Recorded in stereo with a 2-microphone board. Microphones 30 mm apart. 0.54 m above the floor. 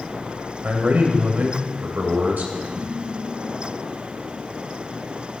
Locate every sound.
0.6 s a man speaking: 65° right (ahead or behind), 2.5 m
2.8 s dishes clattering: 50° right (ahead or behind), 7 m